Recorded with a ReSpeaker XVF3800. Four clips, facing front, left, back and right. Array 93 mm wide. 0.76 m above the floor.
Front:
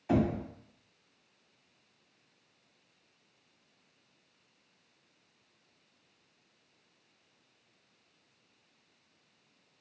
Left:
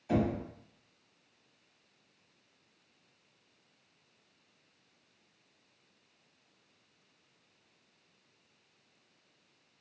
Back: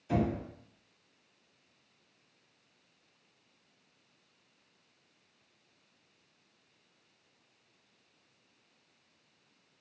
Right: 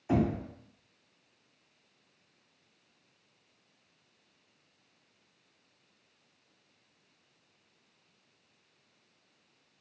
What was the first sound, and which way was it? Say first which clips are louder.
Knocking: right 2 dB, front 3 dB; 20° right.